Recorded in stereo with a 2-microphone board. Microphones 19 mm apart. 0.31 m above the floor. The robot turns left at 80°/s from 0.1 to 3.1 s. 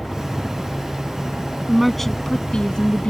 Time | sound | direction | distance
0.0 | a helicopter | 15° right | ?
1.7 | a woman speaking | 170° right | ?